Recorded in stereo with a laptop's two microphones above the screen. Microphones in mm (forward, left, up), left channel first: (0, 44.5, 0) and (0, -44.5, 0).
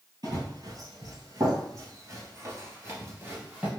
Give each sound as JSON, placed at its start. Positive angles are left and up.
{"t": 0.2, "sound": "running footsteps", "side_deg": -45, "distance_m": 1.7}